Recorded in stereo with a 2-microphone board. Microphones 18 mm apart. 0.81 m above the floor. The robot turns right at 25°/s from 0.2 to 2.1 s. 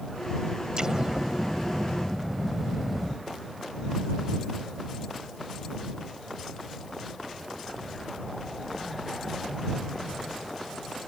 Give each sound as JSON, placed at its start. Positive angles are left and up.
{"t": 0.8, "sound": "an explosion", "azimuth_deg": -35}